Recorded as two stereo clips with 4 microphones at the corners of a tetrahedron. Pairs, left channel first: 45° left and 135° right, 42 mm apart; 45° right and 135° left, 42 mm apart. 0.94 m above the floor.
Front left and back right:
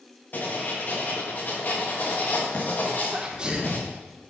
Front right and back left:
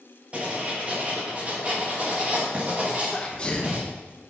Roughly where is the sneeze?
Right.